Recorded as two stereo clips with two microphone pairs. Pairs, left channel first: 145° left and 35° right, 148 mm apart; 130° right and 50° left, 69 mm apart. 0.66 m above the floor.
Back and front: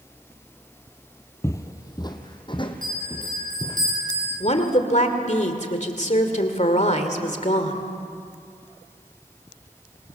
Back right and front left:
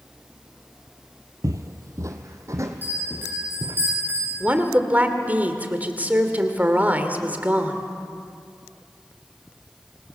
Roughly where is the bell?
Ahead.